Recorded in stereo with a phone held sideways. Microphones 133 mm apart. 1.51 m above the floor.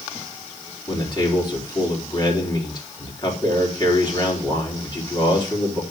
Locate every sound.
0.9 s a man speaking: 35° left (ahead or behind), 4 m